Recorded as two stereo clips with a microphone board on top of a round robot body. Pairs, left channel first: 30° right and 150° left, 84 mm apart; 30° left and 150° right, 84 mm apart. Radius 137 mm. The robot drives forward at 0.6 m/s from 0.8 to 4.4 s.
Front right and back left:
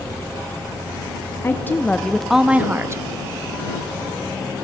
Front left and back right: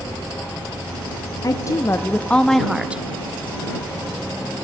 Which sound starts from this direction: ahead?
A woman speaking, at 1.4 s.